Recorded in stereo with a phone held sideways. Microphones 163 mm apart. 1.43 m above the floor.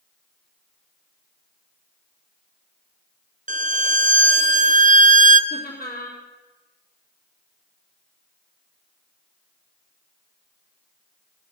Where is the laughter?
65° left (ahead or behind), 3 m.